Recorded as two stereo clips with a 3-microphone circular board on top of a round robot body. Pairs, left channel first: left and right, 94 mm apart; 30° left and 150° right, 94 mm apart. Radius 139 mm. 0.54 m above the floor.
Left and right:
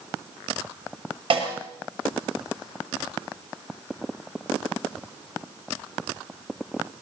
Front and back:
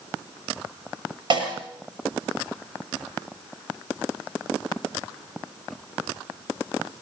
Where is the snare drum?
115° right, 8 m.